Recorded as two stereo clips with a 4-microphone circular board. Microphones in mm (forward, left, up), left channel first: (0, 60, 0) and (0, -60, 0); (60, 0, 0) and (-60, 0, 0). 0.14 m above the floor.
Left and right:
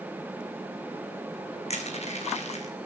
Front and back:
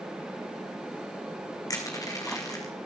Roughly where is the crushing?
Ahead left.